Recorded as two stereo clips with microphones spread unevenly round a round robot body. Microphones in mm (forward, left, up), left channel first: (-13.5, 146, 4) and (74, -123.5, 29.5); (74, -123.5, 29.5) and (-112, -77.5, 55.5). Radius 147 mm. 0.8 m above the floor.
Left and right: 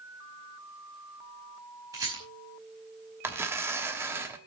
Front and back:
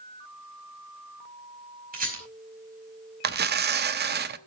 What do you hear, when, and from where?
1.9 s a rattle: 150° right, 5 m
3.2 s tearing paper: 155° right, 0.8 m